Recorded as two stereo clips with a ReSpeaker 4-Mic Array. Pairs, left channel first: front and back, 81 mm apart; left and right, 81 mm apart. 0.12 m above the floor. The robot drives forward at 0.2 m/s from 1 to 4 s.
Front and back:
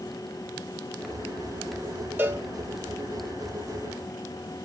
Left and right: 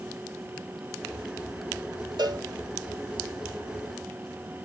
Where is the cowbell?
115° right, 1.6 m.